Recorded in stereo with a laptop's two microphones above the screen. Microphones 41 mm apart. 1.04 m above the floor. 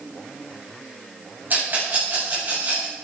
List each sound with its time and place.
1.5 s a rattle: 55° right (ahead or behind), 8.5 m